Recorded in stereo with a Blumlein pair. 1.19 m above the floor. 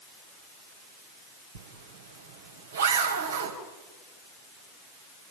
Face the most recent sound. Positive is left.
turn(degrees=-65)